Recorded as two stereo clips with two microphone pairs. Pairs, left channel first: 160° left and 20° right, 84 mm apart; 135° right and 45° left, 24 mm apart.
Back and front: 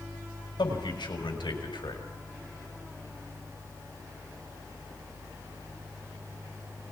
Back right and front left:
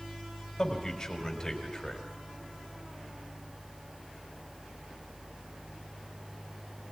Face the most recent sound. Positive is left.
turn(degrees=155)